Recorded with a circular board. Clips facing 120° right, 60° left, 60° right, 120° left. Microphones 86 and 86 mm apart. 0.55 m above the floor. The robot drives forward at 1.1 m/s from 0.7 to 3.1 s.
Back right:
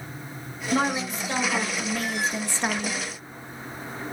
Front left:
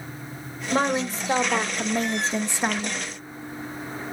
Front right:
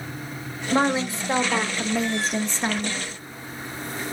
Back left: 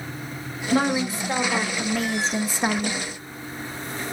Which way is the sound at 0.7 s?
5° left.